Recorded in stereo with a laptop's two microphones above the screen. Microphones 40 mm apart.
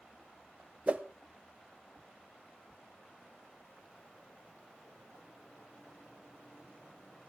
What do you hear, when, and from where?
0.9 s a whoosh: 40° right (ahead or behind), 1.0 m